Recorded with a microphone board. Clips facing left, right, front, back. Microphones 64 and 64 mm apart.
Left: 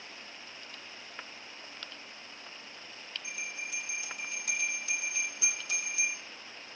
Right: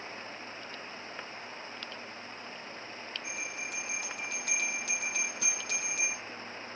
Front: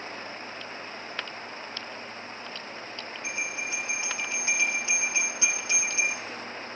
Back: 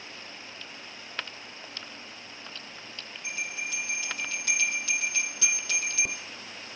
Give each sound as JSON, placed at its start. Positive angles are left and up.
{"t": 3.2, "sound": "a bell", "azimuth_deg": -65, "distance_m": 4.5}